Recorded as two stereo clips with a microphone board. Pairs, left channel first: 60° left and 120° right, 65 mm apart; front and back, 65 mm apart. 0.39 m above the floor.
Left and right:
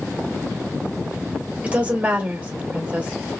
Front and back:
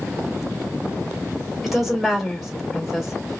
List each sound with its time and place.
1.6 s a woman speaking: 95° right, 1.2 m